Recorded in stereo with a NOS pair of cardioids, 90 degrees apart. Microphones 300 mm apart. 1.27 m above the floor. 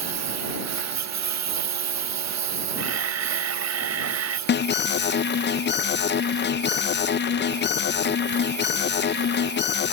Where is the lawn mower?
55° right; by 9.9 s 65° right.